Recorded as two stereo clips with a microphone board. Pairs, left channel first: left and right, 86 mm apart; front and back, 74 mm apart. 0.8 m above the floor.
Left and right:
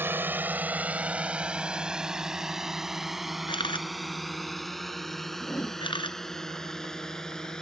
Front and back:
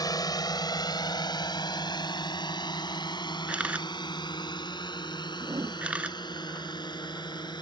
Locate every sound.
0.0 s a drone: 25° right; by 7.6 s 10° left
3.5 s a camera shutter: 105° left
5.4 s a whoosh: 150° left